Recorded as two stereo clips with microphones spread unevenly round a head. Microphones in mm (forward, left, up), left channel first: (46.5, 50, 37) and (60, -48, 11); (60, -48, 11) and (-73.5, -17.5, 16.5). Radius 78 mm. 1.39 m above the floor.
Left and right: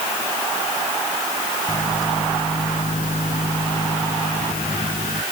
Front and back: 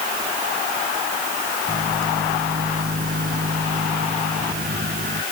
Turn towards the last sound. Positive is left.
turn(degrees=130)